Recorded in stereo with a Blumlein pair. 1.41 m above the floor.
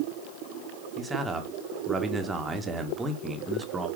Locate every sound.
1.0 s a man speaking: 10° right, 1.6 m